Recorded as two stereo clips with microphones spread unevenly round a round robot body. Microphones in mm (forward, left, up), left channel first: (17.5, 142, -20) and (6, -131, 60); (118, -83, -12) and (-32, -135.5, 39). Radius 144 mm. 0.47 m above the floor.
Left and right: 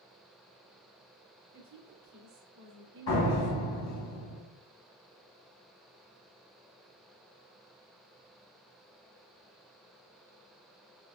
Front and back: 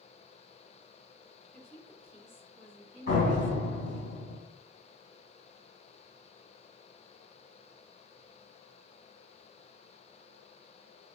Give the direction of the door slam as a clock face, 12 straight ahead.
10 o'clock.